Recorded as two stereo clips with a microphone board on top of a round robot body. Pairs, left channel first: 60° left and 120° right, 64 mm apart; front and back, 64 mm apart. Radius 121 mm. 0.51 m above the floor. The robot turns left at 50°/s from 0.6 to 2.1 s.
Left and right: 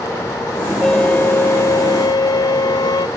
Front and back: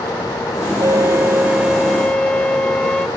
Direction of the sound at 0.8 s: 145° left.